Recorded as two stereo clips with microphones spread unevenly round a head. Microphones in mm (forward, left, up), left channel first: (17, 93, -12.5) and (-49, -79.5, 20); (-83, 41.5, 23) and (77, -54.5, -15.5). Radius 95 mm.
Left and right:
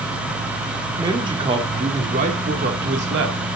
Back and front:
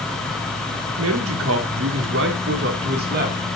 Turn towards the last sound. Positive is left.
turn(degrees=-75)